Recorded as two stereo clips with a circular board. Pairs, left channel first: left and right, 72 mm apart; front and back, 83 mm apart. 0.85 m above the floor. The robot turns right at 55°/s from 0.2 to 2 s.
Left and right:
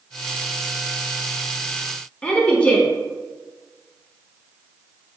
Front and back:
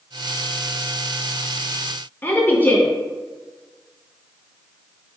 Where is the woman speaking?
35° left, 0.7 m.